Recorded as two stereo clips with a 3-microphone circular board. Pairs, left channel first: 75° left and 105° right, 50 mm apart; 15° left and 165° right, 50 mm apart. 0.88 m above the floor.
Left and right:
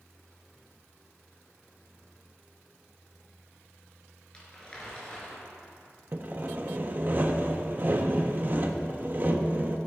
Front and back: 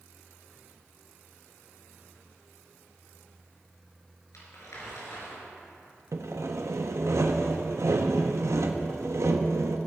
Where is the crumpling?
5° left, 4 m.